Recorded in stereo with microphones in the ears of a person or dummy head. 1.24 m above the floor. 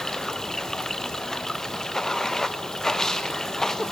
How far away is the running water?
About 0.9 m.